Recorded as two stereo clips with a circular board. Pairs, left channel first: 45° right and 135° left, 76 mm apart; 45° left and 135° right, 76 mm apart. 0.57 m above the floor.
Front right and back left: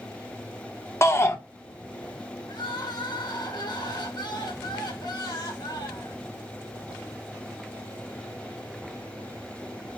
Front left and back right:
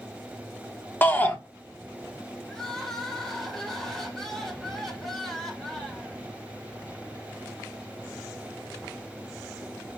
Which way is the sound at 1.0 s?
10° right.